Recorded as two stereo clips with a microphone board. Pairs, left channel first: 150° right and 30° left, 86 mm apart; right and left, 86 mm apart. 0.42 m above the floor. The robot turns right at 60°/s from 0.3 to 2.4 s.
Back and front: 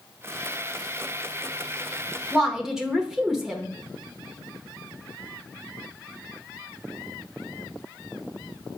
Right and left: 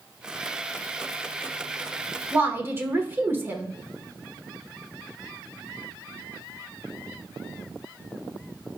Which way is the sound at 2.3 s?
100° left.